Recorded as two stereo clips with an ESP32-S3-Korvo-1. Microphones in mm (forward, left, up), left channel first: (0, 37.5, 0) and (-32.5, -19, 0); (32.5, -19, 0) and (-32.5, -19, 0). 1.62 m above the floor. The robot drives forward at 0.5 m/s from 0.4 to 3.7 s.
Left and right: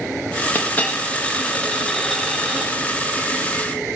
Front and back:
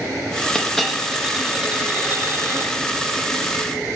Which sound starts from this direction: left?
A dropped coin, at 0.6 s.